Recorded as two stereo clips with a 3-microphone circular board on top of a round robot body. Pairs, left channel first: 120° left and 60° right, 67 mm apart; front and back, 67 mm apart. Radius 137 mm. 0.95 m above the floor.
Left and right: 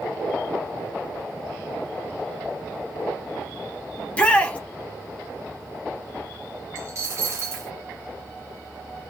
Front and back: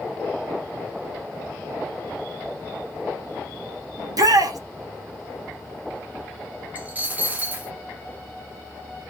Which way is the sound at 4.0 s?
170° right.